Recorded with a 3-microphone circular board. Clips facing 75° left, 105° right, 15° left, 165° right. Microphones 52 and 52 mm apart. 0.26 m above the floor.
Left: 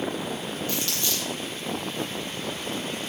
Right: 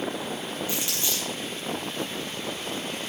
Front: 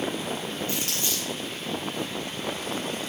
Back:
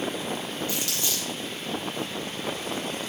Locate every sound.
0.7 s crumpling: 35° right, 4 m